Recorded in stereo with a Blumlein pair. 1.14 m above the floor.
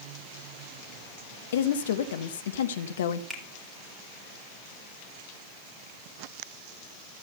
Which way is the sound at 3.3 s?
Straight ahead.